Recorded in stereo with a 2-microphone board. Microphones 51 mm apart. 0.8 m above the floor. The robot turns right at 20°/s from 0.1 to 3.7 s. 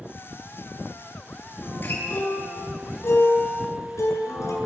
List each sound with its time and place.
1.6 s a guitar: 35° left, 8.5 m; by 4.6 s 80° left, 8.5 m